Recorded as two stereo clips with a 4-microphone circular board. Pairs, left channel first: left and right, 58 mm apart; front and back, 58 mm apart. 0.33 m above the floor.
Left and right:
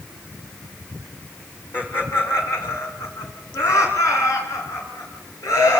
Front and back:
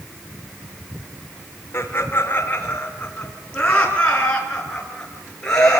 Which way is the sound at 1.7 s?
45° left.